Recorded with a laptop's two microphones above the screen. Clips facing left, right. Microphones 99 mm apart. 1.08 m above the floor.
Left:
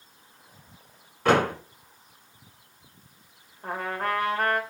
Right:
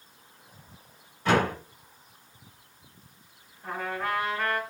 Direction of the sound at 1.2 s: 70° left (ahead or behind).